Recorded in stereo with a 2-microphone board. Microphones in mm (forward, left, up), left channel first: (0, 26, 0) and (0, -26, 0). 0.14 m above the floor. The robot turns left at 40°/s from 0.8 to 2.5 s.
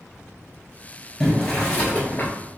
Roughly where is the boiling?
Behind.